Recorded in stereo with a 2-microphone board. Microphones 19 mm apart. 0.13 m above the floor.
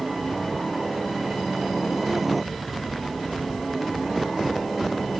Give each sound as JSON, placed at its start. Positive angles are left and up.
{"t": 0.0, "sound": "a helicopter", "side_deg": -10}